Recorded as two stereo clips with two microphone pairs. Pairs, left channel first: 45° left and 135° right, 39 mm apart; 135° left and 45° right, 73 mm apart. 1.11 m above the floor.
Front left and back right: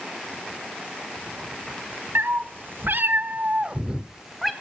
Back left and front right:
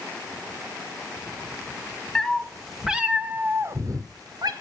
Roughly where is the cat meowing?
Behind right.